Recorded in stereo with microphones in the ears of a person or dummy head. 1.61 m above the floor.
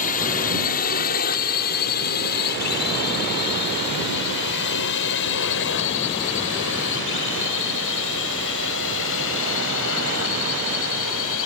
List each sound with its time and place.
0.0 s a drone: 45° left (ahead or behind); by 11.5 s 70° left (ahead or behind)